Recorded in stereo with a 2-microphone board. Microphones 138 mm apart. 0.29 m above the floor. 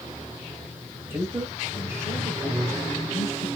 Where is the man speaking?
20° right (ahead or behind), 1.1 m.